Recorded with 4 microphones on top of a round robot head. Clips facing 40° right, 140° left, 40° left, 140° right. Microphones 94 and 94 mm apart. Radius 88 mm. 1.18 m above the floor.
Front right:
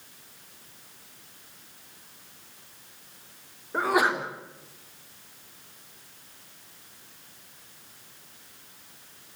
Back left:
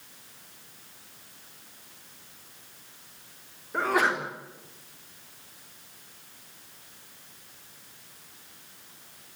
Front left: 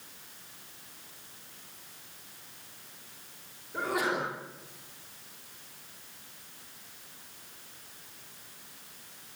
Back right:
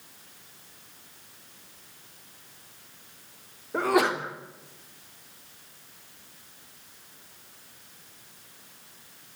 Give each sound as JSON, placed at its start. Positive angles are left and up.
{"t": 3.7, "sound": "a sneeze", "azimuth_deg": -120, "distance_m": 3.5}